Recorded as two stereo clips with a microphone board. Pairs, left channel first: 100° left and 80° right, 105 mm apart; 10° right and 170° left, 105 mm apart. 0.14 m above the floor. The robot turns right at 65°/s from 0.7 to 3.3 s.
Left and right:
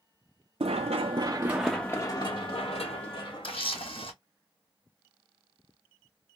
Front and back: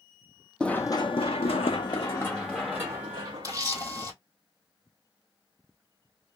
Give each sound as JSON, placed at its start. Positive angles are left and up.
{"t": 0.6, "sound": "running footsteps", "azimuth_deg": -90, "distance_m": 0.5}
{"t": 3.4, "sound": "a camera shutter", "azimuth_deg": 120, "distance_m": 1.4}